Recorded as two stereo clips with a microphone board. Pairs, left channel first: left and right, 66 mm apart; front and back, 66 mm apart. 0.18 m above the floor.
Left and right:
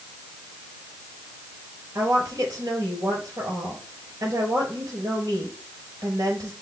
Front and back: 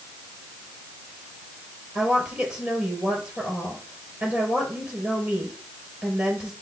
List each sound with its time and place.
1.9 s a woman speaking: 120° right, 4 m